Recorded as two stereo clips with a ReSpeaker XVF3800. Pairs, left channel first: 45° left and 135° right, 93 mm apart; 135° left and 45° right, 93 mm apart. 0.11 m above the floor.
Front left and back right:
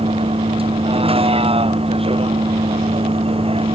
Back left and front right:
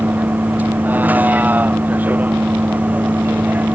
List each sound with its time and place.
0.0 s a vehicle: 120° right